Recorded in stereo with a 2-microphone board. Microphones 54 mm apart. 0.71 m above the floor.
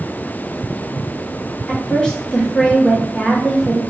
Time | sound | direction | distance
1.7 | a woman speaking | 15° left (ahead or behind) | 0.8 m